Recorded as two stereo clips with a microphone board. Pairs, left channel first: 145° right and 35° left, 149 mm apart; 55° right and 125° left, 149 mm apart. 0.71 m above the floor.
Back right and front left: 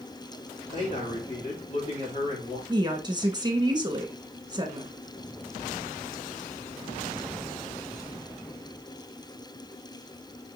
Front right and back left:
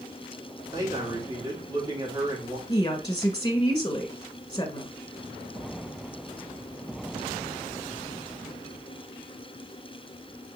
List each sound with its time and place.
0.7 s a man speaking: 175° right, 2.5 m
2.7 s a woman speaking: 10° right, 1.2 m